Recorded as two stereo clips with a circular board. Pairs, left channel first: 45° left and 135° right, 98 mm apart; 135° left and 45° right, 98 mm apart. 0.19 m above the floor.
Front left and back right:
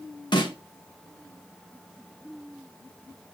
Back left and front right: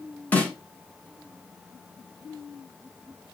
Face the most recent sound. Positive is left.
turn(degrees=65)